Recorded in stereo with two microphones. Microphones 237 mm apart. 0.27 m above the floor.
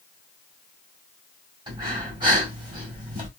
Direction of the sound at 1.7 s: 20° right (ahead or behind).